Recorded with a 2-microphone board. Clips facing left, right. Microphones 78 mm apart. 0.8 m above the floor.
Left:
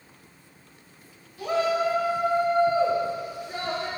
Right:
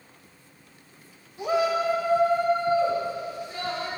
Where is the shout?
20° right (ahead or behind), 0.9 m; by 3.9 s 35° left (ahead or behind), 1.9 m.